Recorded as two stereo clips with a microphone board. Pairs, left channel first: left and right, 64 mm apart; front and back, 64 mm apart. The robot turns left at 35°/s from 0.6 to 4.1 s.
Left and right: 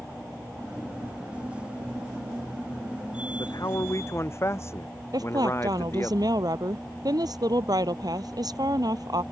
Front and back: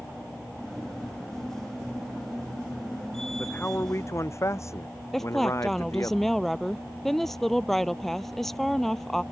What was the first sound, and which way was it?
A man speaking, 70° left.